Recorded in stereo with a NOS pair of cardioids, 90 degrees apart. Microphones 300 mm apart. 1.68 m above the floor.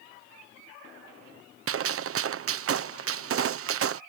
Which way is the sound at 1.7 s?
50° right.